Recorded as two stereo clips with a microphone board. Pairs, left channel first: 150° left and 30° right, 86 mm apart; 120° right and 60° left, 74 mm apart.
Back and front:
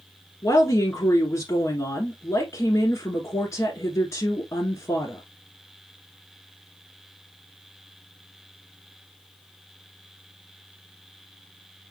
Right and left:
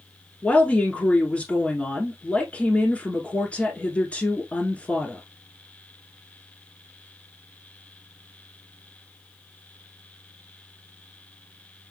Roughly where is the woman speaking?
Behind.